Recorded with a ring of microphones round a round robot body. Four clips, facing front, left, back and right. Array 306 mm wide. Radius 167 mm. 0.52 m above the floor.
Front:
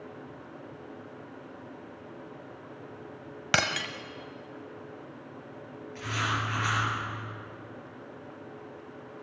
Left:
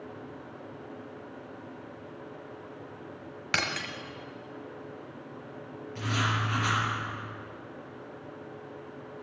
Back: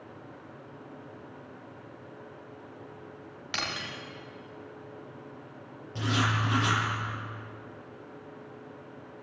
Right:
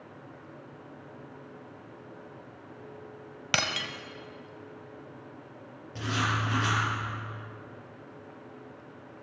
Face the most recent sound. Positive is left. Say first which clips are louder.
# even, back 3 dB
turn(degrees=-150)